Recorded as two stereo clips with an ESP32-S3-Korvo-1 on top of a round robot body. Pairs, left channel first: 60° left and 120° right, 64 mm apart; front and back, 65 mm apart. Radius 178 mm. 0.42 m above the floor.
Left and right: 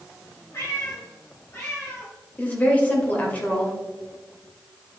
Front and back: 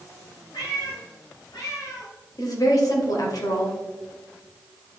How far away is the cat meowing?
About 3.5 m.